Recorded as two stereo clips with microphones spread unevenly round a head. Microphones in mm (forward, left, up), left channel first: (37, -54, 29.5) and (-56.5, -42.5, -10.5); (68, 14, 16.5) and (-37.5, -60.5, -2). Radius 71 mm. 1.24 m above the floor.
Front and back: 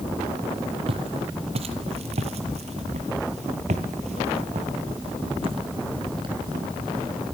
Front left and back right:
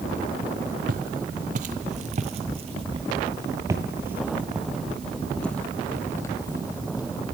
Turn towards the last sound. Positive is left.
turn(degrees=95)